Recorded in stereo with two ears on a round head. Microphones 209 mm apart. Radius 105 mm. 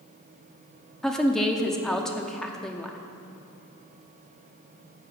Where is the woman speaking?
5° left (ahead or behind), 0.7 m.